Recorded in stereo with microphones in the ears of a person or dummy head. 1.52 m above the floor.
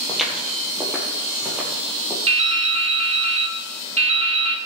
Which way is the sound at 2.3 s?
35° right (ahead or behind).